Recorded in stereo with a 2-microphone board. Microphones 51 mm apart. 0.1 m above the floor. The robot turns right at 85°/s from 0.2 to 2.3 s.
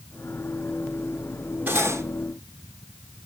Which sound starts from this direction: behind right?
Cutlery clinking, at 1.7 s.